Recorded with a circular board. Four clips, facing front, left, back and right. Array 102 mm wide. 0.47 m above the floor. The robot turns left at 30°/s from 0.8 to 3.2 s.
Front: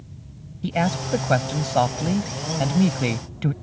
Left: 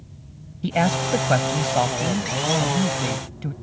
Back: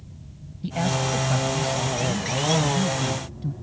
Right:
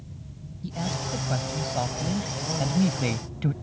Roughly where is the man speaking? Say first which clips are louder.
Left 11 dB, front 2 dB; ahead left.